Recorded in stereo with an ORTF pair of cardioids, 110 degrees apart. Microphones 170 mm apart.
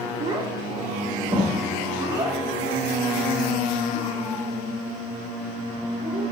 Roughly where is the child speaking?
Ahead right.